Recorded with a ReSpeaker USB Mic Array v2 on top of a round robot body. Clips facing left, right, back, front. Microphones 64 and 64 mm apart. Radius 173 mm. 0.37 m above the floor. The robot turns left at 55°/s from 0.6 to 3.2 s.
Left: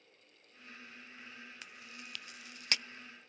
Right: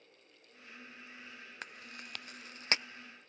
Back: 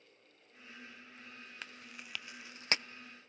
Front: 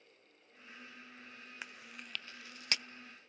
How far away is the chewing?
About 0.6 m.